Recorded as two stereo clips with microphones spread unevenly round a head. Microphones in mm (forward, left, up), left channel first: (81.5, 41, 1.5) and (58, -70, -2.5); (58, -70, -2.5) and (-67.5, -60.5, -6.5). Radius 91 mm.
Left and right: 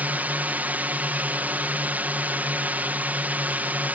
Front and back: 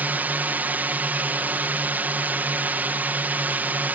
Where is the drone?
140° right.